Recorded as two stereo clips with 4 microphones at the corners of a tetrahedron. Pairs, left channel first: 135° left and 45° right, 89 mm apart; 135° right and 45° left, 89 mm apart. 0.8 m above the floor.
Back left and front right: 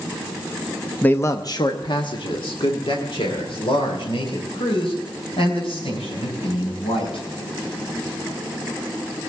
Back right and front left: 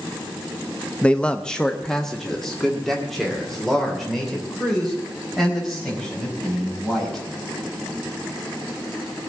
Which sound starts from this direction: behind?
A man speaking, at 1.0 s.